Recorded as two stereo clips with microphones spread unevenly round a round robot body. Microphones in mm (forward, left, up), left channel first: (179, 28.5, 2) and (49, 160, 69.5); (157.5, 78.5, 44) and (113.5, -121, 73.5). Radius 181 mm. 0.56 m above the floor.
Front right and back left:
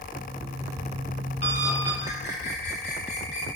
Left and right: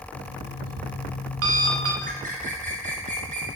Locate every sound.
0.1 s an alarm clock: 120° right, 2 m
2.0 s a bird: 50° right, 3.5 m